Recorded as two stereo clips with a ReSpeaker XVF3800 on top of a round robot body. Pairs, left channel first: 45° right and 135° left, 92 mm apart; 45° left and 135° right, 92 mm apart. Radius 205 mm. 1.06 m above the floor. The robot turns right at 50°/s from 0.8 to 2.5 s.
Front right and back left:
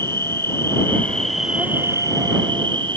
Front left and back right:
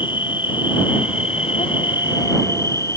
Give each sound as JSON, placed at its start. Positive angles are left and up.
{"t": 0.0, "sound": "an insect", "azimuth_deg": 20}